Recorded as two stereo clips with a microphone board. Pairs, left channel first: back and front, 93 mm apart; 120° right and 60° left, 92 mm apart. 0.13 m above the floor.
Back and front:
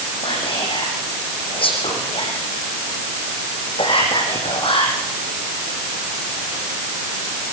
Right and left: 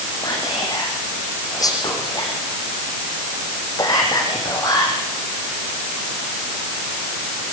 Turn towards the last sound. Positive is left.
turn(degrees=-170)